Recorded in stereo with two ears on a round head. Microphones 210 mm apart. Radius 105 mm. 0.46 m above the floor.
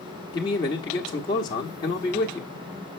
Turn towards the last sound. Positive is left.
turn(degrees=20)  # may be behind; listen again after turning